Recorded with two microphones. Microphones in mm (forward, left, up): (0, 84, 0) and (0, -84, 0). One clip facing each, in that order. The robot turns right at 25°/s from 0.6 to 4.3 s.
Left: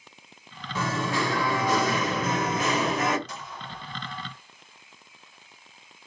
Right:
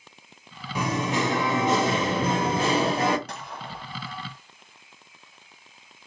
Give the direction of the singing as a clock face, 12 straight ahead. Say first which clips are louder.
Right 2 dB; 5 o'clock.